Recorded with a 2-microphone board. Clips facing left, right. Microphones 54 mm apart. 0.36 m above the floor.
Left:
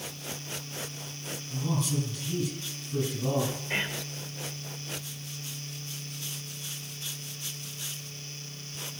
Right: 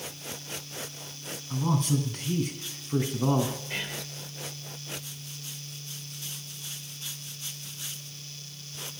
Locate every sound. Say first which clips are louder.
1.5 s a man speaking: right 4 dB; 55° right (ahead or behind), 2.5 m
3.7 s whispering: left 4 dB; 30° left (ahead or behind), 1.1 m